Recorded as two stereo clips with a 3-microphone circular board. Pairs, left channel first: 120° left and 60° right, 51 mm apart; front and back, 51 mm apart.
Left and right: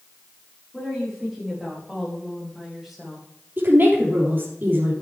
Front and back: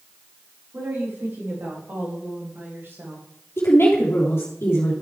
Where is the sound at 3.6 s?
25° right, 3 m.